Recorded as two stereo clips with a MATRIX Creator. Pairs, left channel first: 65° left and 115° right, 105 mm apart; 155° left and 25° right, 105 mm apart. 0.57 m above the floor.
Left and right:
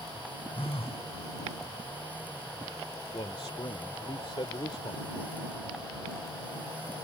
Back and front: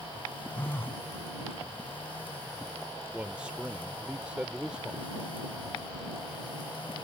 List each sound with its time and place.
0.6 s a phone buzzing: 85° left
3.1 s a man speaking: 55° left